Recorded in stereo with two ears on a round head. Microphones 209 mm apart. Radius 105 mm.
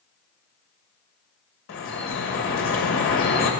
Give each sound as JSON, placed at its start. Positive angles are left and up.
{"t": 1.7, "sound": "dripping", "side_deg": 55, "distance_m": 1.8}